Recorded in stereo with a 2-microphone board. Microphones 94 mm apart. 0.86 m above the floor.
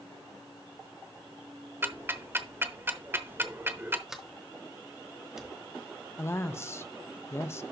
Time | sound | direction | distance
1.8 | ticking | 25° right (ahead or behind) | 0.8 m
4.1 | a sliding door | 5° right (ahead or behind) | 1.4 m
6.2 | a woman speaking | 25° left (ahead or behind) | 0.5 m